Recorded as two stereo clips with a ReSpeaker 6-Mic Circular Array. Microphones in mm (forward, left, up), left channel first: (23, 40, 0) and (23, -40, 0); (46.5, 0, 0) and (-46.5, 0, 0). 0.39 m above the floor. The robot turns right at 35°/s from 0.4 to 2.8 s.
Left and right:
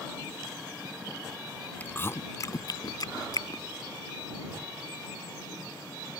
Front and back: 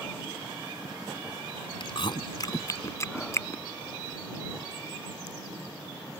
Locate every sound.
1.8 s chewing: 20° left; by 3.6 s 55° left